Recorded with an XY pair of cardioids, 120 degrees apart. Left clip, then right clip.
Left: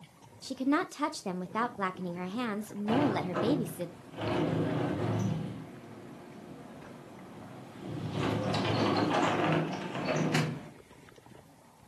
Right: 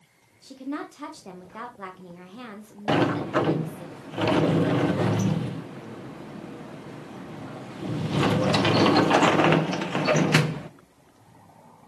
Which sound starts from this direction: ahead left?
A woman speaking, at 0.4 s.